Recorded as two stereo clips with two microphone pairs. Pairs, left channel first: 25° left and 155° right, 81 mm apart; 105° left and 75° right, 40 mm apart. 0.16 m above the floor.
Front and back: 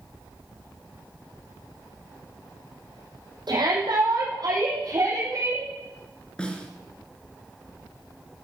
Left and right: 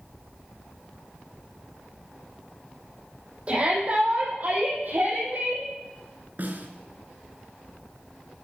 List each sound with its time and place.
3.5 s a shout: 130° right, 7.5 m; by 5.7 s 110° right, 8.5 m
6.4 s a snare drum: 50° right, 2.5 m